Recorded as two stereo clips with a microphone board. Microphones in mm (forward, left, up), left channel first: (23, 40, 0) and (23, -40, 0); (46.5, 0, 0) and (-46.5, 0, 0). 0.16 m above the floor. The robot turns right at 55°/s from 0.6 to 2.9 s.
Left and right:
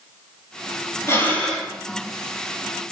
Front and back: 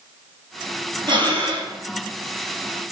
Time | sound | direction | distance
1.1 | breathing | 145° left | 0.6 m